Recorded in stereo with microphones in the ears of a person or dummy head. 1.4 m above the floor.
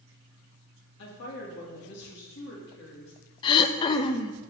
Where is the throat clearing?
25° left (ahead or behind), 0.8 m.